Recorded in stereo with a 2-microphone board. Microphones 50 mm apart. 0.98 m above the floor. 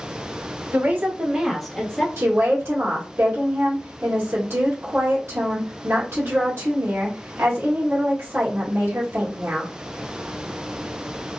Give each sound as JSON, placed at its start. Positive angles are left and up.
{"t": 0.7, "sound": "a woman speaking", "side_deg": -55, "distance_m": 1.1}
{"t": 2.2, "sound": "a woman speaking", "side_deg": -55, "distance_m": 1.5}